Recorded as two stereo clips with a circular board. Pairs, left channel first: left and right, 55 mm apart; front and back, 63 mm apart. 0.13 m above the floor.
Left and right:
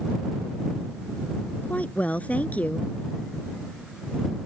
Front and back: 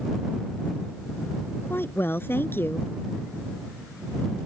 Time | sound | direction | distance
1.6 | a woman speaking | 35° left | ?